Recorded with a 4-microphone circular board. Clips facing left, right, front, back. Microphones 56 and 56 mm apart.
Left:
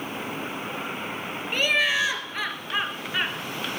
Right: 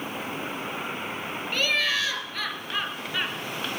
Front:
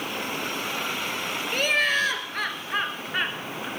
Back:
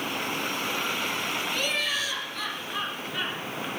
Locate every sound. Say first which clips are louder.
1.5 s laughter: left 3 dB, front 10 dB; 25° left, 1.8 m